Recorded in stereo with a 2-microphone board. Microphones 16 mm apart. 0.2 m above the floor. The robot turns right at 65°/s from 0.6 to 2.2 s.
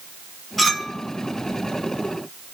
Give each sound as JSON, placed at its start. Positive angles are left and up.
{"t": 0.6, "sound": "a clink", "side_deg": 5, "distance_m": 1.0}